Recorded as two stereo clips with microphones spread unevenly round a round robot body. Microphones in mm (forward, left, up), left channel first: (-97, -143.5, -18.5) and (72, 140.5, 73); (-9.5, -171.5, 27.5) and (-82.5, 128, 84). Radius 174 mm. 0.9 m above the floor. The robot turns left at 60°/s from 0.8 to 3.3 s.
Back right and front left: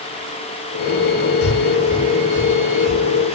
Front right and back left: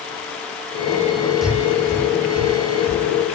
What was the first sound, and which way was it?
Breathing, 165° right.